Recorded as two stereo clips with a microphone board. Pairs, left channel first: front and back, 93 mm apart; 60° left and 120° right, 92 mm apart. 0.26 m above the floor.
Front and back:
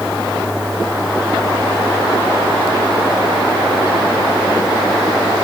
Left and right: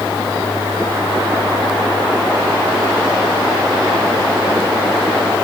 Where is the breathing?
I don't hear breathing.